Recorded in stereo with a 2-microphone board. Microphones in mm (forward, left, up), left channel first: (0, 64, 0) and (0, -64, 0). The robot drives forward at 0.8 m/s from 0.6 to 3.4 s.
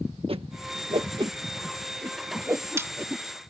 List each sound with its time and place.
0.3 s a whoosh: 50° right (ahead or behind); by 3.2 s 20° right (ahead or behind)